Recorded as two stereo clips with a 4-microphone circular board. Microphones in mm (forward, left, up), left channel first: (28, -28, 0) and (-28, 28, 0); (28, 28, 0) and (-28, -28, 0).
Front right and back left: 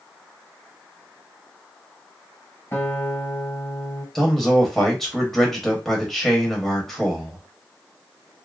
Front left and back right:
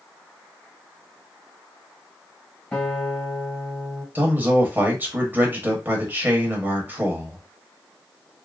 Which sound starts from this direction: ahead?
A guitar, at 2.7 s.